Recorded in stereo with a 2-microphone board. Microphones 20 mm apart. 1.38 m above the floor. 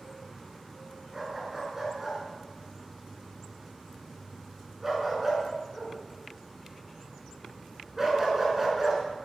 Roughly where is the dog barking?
Centre.